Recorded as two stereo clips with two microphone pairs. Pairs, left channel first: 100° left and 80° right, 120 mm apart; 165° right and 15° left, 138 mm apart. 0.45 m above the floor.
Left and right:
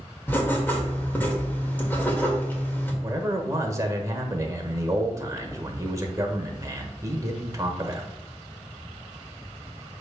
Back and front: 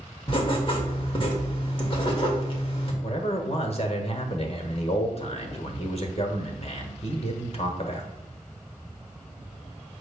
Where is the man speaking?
135° right, 1.2 m.